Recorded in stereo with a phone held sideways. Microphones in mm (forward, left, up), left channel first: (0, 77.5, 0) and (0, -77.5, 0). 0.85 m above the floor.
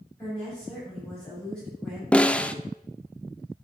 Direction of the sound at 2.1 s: 5° left (ahead or behind).